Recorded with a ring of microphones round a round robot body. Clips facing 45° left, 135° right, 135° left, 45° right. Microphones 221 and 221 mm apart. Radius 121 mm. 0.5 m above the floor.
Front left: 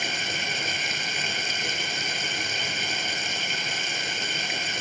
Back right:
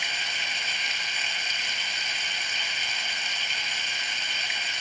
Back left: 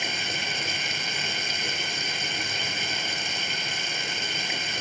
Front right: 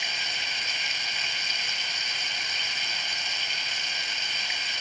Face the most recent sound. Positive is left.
turn(degrees=90)